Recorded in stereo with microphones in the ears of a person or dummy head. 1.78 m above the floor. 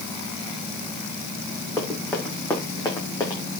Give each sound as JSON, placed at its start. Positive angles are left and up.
{"t": 1.8, "sound": "running footsteps", "side_deg": 15, "distance_m": 5.5}